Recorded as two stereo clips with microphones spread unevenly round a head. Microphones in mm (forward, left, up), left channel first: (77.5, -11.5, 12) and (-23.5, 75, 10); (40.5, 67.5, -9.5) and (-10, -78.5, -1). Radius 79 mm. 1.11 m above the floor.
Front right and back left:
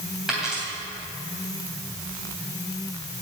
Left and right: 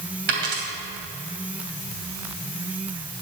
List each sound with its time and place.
0.3 s a dropped coin: 135° right, 3 m